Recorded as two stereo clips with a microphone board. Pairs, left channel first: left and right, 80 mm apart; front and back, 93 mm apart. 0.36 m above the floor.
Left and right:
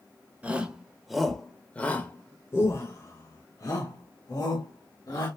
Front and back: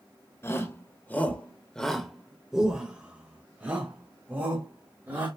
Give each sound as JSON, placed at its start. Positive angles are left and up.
{"t": 0.4, "sound": "a shout", "azimuth_deg": -30, "distance_m": 1.2}